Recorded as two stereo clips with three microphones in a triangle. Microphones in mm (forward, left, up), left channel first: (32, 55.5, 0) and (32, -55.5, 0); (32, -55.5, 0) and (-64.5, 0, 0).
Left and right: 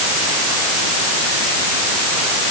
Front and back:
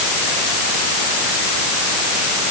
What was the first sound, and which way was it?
Only background noise.